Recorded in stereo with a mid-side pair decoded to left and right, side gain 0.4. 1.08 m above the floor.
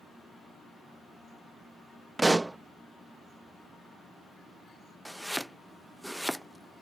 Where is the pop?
15° right.